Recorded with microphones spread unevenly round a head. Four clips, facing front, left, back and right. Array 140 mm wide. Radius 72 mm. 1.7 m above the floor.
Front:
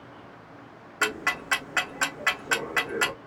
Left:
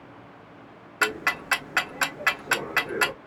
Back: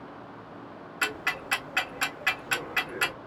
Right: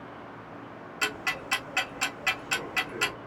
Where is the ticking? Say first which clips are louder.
Left 7 dB, front 4 dB; 55° left, 0.7 m.